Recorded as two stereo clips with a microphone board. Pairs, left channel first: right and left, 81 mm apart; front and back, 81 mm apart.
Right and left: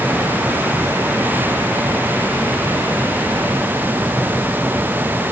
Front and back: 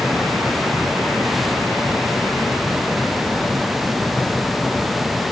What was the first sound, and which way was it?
Only background noise.